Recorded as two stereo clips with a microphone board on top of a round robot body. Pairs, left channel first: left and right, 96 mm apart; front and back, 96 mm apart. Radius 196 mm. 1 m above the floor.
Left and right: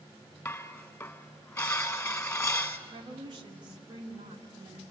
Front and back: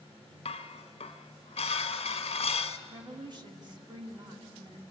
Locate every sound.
0.5 s dishes clattering: 20° left, 1.3 m
2.9 s a woman speaking: 135° right, 2.5 m